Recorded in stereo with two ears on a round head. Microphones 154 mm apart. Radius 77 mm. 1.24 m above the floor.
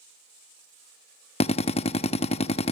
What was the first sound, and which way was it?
A drill, 35° left (ahead or behind).